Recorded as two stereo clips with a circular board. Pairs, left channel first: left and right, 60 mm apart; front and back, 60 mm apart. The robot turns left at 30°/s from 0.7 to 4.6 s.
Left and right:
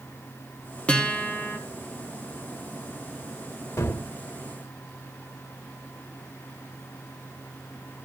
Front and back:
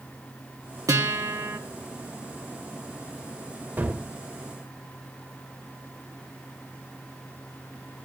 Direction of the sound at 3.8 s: 120° left.